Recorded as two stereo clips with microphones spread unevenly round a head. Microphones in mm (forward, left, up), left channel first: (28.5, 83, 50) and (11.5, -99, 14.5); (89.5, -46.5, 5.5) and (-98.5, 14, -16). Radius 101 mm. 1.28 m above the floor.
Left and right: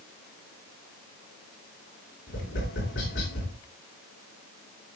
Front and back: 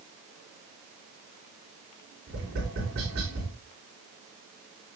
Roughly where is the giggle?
I don't hear a giggle.